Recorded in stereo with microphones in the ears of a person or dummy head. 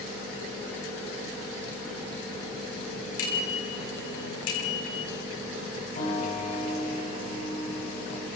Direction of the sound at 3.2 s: 70° left (ahead or behind).